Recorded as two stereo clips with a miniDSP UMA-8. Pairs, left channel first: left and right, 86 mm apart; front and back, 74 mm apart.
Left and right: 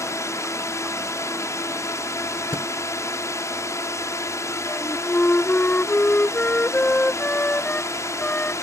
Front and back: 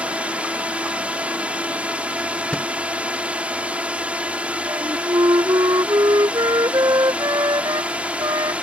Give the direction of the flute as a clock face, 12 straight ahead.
7 o'clock.